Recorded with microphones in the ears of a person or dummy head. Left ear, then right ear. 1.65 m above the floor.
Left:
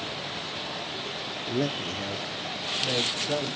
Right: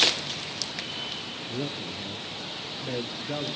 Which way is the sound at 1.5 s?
65° left (ahead or behind).